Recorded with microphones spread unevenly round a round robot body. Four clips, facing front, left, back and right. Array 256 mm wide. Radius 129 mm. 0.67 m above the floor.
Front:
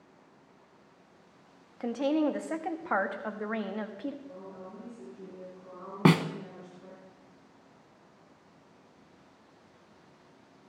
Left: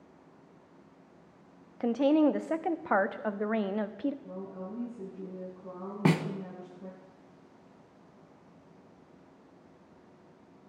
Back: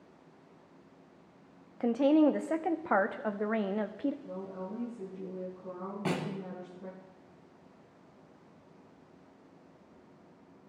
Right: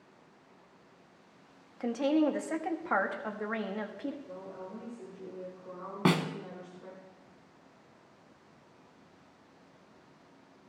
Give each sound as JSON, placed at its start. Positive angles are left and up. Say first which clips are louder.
{"t": 1.8, "sound": "a woman speaking", "louder": "left 3 dB, back 4 dB", "azimuth_deg": 140, "distance_m": 1.0}
{"t": 4.2, "sound": "a woman speaking", "louder": "left 3 dB, back 4 dB", "azimuth_deg": 125, "distance_m": 5.5}
{"t": 6.0, "sound": "a snare drum", "louder": "even, front 11 dB", "azimuth_deg": 15, "distance_m": 0.9}